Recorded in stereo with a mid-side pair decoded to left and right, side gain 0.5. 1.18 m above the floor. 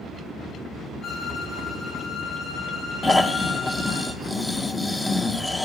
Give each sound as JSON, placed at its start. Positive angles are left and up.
{"t": 1.0, "sound": "a violin", "azimuth_deg": 55, "distance_m": 7.5}
{"t": 3.0, "sound": "snoring", "azimuth_deg": 15, "distance_m": 0.9}